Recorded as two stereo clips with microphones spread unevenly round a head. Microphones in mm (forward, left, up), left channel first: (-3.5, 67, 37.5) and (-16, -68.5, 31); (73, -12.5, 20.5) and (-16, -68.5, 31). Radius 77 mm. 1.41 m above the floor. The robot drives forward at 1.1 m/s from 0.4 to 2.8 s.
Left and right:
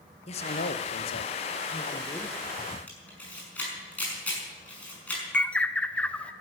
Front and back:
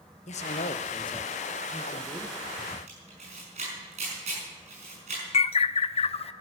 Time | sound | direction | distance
0.3 | a man speaking | 40° left | 1.0 m
2.9 | a camera shutter | 165° left | 5.5 m
5.3 | a bird | 5° left | 0.5 m